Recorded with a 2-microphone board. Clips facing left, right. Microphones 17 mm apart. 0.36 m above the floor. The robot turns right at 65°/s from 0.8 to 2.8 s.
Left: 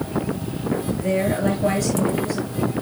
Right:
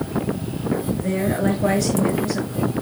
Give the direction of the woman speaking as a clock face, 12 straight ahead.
6 o'clock.